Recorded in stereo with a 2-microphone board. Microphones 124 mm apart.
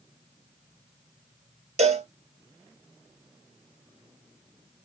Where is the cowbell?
70° right (ahead or behind), 0.7 m.